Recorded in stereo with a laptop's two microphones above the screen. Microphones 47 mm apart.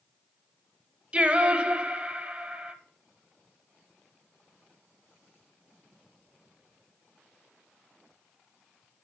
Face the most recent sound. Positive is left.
turn(degrees=-25)  # may be behind; listen again after turning